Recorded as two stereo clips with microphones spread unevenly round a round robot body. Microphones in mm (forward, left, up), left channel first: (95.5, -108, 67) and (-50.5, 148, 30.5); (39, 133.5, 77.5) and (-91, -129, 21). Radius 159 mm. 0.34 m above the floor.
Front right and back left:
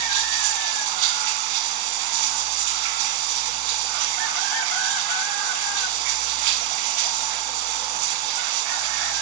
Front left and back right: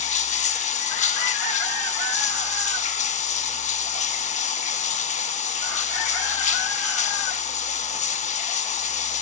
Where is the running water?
130° left, 0.8 m.